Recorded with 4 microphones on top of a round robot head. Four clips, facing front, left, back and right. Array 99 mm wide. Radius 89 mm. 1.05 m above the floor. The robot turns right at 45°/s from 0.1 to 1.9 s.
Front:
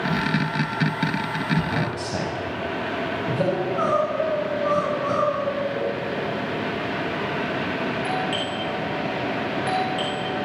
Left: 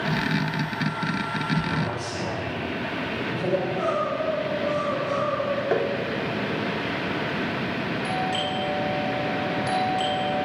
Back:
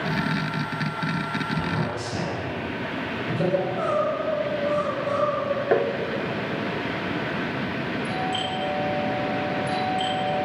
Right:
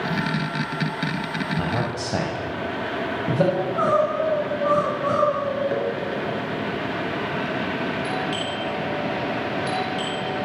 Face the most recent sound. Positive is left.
turn(degrees=20)